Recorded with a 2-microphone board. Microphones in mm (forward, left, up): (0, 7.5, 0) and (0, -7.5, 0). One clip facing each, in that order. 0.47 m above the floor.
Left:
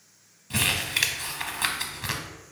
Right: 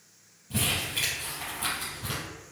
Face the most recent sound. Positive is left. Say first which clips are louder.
# left 4 dB
turn(degrees=65)  # may be behind; listen again after turning